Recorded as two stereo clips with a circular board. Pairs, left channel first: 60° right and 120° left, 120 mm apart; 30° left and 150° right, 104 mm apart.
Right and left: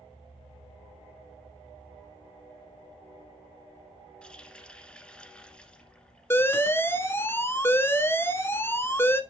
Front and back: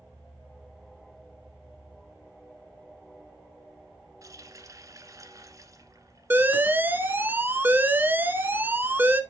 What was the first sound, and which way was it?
A running tap, 135° right.